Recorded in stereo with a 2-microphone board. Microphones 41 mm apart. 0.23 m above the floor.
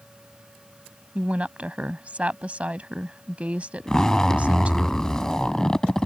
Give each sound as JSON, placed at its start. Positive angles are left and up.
{"t": 1.1, "sound": "a woman speaking", "side_deg": -35}
{"t": 3.9, "sound": "a zipper", "side_deg": 15}